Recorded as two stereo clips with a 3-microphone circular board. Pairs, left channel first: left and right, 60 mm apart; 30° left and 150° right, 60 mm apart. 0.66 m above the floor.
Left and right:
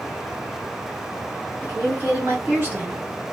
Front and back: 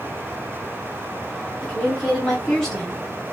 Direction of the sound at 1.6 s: 50° right.